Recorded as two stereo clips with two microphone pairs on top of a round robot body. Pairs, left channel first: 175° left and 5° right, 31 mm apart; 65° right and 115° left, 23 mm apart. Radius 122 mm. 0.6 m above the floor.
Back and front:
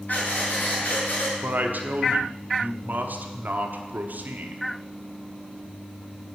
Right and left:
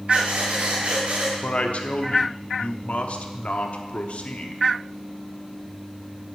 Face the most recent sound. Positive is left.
turn(degrees=-35)